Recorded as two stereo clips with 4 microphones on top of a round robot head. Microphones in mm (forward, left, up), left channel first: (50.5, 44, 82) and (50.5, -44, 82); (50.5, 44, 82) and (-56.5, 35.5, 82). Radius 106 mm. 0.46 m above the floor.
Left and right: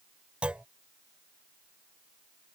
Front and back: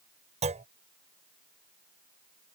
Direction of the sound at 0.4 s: 170° right.